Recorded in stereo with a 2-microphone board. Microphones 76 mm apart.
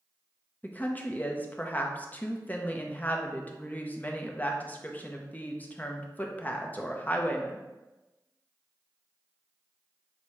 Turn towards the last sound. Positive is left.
turn(degrees=25)  # may be behind; listen again after turning